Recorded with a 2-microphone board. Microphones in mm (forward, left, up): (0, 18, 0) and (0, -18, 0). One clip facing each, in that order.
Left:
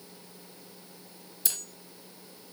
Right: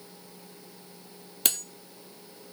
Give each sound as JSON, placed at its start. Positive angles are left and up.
{"t": 1.4, "sound": "cutlery clinking", "side_deg": -60, "distance_m": 1.8}